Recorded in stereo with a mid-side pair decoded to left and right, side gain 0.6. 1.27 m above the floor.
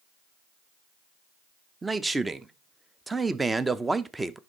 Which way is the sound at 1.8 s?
15° right.